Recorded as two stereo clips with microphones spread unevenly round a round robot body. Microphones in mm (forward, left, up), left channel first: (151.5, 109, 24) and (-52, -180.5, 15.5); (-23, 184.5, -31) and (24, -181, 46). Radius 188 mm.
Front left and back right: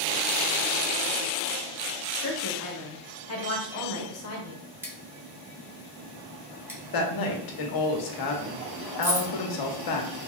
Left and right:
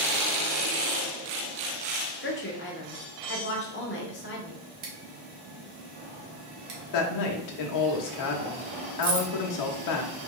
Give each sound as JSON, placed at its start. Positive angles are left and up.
{"t": 2.2, "sound": "a woman speaking", "azimuth_deg": 80, "distance_m": 1.2}
{"t": 4.8, "sound": "scissors", "azimuth_deg": -45, "distance_m": 1.4}
{"t": 6.9, "sound": "a woman speaking", "azimuth_deg": 80, "distance_m": 1.0}
{"t": 9.0, "sound": "keys jangling", "azimuth_deg": -100, "distance_m": 2.0}